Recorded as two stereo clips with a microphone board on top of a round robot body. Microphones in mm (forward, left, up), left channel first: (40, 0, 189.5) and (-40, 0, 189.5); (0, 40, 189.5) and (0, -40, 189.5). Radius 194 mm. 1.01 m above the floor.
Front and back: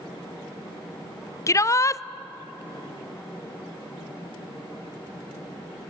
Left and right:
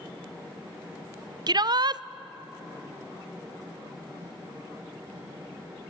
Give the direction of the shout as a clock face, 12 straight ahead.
2 o'clock.